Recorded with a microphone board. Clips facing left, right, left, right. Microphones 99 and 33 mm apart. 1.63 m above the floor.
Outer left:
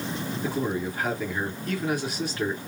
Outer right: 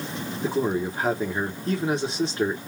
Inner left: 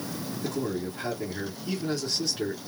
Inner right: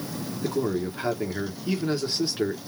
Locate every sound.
0.4 s a man speaking: 25° right (ahead or behind), 1.1 m